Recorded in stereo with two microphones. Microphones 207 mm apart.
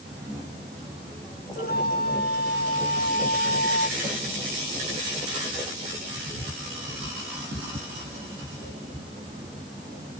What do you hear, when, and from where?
1.6 s a flute: 50° left (ahead or behind)